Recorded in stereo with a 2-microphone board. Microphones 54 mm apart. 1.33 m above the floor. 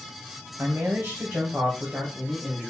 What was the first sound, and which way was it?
A man speaking, 40° right (ahead or behind).